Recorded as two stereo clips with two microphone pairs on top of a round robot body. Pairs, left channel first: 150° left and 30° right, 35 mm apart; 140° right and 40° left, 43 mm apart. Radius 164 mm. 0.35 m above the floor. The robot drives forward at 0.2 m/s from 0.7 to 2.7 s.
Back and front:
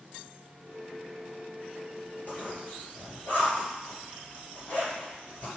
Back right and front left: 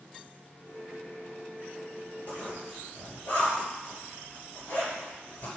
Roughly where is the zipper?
Behind.